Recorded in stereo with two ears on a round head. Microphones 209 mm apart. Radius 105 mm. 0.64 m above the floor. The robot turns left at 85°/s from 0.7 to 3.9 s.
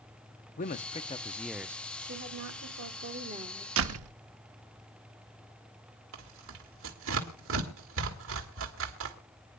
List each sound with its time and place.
0.6 s a man speaking: 70° left, 0.7 m; by 1.8 s 25° right, 0.7 m
2.0 s a woman speaking: 40° right, 1.7 m; by 3.7 s straight behind, 1.7 m
3.8 s a door slam: 60° right (ahead or behind), 0.8 m; by 4.1 s 65° right (ahead or behind), 0.8 m
6.1 s tearing paper: 65° right (ahead or behind), 2 m